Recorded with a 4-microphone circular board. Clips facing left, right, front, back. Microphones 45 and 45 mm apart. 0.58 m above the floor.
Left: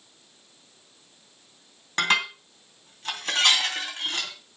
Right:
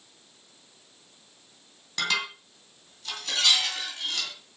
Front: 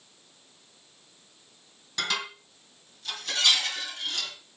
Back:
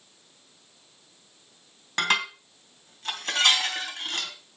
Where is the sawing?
I don't hear sawing.